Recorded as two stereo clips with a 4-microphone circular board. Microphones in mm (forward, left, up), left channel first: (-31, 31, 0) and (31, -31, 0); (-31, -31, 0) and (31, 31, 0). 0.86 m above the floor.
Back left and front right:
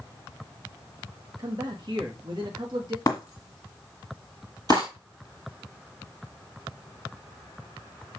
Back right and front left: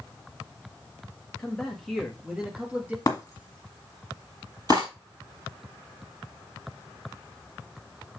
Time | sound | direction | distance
1.4 | a man speaking | 60° right | 1.6 m
3.1 | breaking glass | straight behind | 1.7 m
4.7 | cutlery clinking | straight ahead | 3.5 m